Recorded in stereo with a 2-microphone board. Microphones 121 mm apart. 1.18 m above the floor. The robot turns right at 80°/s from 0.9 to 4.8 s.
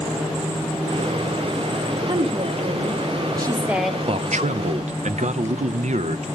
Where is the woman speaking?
145° right, 1.5 m; by 4.0 s 10° left, 1.5 m.